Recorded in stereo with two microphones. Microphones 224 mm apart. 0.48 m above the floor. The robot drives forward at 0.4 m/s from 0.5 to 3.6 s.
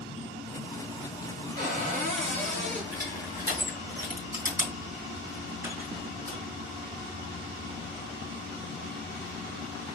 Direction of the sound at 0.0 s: 25° left (ahead or behind).